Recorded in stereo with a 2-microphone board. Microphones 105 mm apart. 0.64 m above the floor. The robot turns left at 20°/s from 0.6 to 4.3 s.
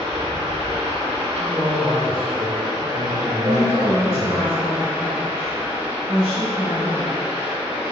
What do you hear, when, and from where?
0.0 s running water: 90° right, 1.2 m; by 7.9 s 165° right, 1.2 m
1.4 s a man speaking: 55° right, 1.8 m; by 4.4 s 115° right, 1.8 m
3.4 s a woman speaking: 50° right (ahead or behind), 1.5 m; by 7.2 s 45° right (ahead or behind), 1.5 m